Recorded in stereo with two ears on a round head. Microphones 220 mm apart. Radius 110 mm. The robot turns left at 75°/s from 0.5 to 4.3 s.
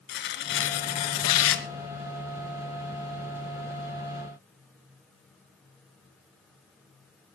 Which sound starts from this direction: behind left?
Tearing paper, at 0.1 s.